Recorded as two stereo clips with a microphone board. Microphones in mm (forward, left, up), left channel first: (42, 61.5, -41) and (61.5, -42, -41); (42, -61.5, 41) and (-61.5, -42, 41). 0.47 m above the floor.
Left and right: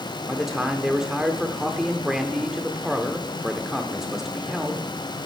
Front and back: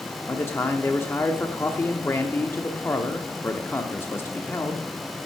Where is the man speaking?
Straight ahead, 0.7 m.